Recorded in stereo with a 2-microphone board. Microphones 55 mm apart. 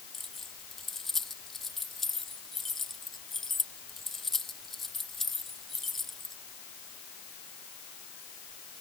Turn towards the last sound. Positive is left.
turn(degrees=5)  # may be behind; listen again after turning